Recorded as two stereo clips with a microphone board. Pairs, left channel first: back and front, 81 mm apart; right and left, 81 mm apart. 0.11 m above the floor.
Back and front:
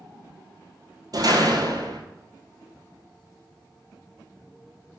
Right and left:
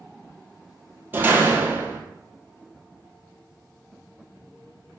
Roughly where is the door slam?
Ahead left.